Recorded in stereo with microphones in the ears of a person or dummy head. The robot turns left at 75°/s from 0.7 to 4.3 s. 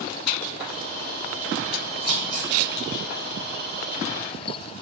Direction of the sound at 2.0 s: 60° right (ahead or behind).